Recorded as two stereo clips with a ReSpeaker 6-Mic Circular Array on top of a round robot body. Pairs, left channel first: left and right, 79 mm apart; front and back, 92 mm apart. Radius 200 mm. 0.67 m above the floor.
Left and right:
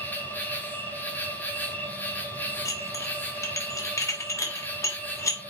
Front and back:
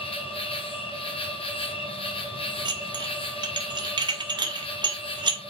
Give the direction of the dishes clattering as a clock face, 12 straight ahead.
7 o'clock.